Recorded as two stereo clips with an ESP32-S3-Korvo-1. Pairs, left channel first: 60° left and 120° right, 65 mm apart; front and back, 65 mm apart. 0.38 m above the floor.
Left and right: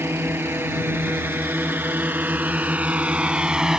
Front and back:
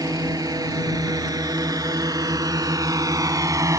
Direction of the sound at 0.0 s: 175° right.